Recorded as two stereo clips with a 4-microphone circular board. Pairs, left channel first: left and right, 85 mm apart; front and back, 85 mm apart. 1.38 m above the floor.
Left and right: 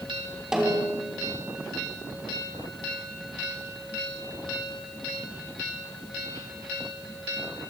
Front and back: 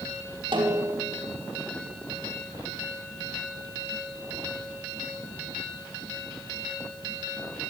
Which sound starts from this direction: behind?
A snare drum, at 0.5 s.